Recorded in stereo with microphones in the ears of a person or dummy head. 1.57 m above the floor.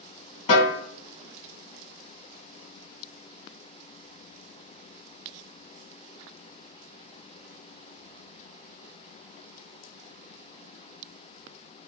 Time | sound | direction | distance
0.5 | a snare drum | 35° left (ahead or behind) | 1.3 m